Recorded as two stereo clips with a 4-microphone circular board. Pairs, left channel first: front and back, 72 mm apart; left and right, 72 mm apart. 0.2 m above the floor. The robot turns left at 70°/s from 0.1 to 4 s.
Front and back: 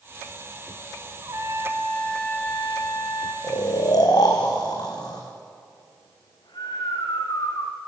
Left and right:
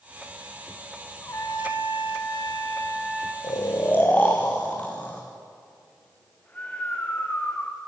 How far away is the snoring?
About 3.5 m.